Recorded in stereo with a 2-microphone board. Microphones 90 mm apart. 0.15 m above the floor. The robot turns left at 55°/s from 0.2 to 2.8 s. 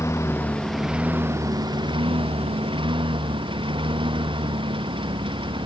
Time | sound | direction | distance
0.0 | a lawn mower | 30° left | ?